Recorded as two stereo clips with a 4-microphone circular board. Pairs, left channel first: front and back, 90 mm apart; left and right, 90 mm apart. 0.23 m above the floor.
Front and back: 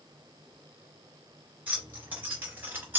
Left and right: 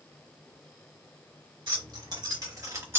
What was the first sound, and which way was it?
Keys jangling, 115° right.